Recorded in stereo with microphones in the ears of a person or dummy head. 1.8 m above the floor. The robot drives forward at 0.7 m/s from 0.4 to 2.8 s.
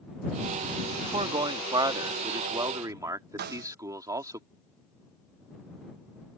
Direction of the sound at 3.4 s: 60° right (ahead or behind).